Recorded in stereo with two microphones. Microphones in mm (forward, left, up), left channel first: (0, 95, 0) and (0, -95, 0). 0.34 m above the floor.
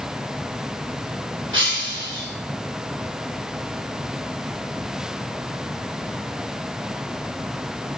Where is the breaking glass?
85° right, 6 m.